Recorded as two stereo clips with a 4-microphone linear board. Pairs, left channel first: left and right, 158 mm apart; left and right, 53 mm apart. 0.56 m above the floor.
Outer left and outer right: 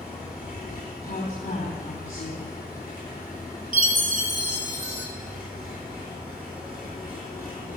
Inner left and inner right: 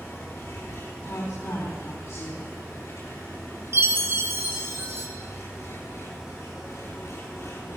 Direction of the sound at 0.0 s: 75° left (ahead or behind).